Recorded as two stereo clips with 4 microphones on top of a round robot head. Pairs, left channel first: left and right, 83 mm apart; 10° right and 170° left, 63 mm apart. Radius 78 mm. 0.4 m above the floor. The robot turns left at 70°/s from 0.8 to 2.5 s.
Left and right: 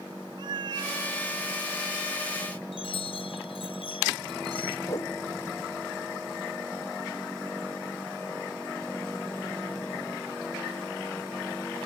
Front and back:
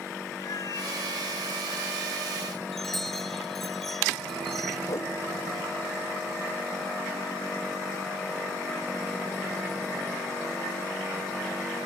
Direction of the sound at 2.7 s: 80° left.